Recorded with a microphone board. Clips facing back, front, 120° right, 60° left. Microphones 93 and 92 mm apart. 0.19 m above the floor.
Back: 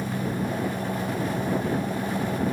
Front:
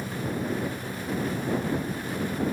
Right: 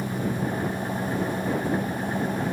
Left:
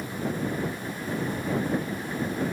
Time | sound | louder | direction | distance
0.0 | an engine running | back 3 dB, right 3 dB | 170° right | ?